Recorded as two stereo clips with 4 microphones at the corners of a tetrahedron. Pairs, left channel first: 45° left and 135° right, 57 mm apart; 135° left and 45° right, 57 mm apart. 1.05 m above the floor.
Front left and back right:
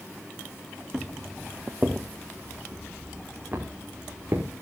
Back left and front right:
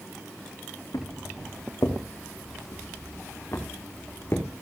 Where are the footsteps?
145° left, 4.5 m; by 4.5 s 175° right, 5.5 m.